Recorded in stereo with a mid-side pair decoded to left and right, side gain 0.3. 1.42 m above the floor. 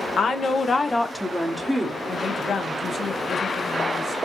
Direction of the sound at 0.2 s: 70° left.